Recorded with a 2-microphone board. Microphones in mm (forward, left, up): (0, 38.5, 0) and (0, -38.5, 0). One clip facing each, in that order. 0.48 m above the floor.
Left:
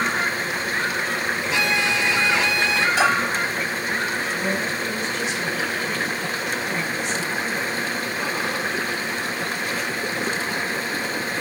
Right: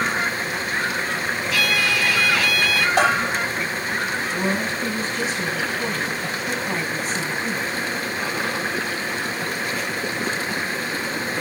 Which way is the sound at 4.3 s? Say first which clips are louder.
Right 1 dB; 40° right (ahead or behind).